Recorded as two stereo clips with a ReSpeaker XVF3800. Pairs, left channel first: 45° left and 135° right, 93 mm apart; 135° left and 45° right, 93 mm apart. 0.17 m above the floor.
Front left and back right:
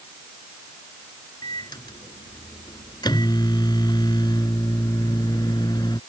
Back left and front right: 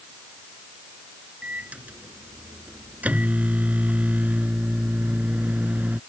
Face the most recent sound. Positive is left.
turn(degrees=25)